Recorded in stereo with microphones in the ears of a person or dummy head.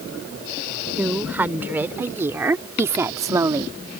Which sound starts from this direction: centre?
A woman speaking, at 1.0 s.